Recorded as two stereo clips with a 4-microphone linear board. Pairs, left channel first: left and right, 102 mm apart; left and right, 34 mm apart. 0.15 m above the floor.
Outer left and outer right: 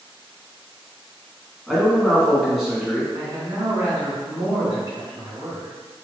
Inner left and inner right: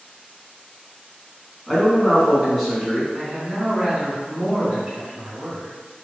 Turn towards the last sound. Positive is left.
turn(degrees=-40)  # may be behind; listen again after turning